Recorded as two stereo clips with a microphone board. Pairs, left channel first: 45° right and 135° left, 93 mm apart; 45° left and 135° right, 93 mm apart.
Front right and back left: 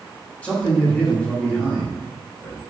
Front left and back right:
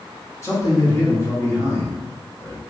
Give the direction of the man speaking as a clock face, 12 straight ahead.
11 o'clock.